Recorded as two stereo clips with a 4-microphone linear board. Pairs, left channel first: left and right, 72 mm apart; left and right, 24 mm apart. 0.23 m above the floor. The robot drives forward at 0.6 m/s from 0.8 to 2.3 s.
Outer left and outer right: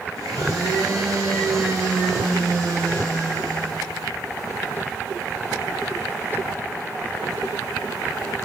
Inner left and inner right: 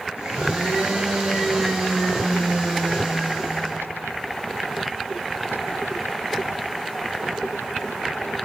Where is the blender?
55° right (ahead or behind), 3 m; by 3.9 s 45° right (ahead or behind), 3.5 m.